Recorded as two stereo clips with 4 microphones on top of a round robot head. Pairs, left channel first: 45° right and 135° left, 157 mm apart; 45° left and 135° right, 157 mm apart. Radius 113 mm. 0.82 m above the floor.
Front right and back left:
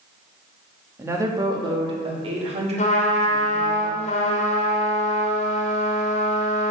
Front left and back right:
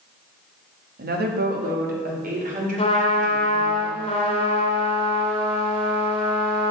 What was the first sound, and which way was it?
A woman speaking, 150° right.